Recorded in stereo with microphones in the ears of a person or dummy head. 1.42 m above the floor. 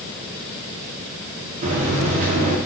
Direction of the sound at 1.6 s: 40° right (ahead or behind).